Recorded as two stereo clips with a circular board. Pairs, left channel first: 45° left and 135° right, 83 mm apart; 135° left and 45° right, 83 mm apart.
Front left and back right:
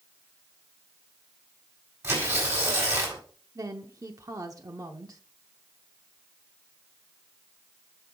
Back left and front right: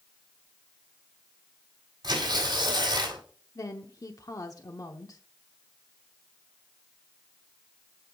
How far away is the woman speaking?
About 0.8 m.